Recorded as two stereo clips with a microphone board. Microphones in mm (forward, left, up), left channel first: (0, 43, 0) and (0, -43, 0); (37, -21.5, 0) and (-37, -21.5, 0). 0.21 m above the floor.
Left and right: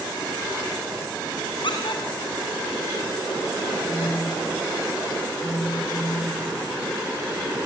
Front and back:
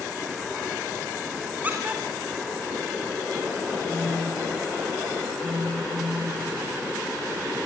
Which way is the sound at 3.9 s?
130° left.